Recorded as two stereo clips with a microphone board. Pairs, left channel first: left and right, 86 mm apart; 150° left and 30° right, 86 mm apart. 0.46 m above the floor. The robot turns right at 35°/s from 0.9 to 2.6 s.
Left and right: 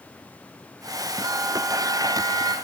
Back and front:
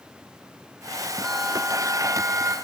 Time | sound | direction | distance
1.2 | a bell | 125° right | 1.8 m